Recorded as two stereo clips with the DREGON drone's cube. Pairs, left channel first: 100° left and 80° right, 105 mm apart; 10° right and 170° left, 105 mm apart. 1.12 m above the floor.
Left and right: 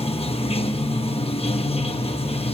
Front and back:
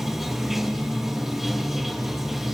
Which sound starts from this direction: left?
Running water, at 0.0 s.